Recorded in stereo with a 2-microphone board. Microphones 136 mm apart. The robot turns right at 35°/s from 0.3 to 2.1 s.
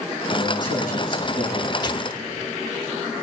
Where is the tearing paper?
35° left (ahead or behind), 0.5 m.